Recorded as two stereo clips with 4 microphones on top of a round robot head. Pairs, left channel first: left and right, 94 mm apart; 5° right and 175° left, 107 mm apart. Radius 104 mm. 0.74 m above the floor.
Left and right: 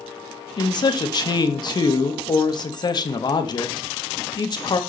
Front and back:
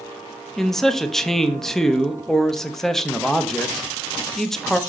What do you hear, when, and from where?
0.6 s a man speaking: 80° left, 1.0 m